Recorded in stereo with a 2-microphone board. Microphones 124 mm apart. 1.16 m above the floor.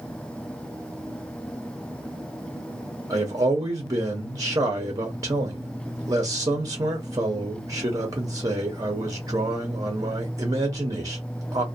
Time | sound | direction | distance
3.1 | a man speaking | 30° right (ahead or behind) | 0.7 m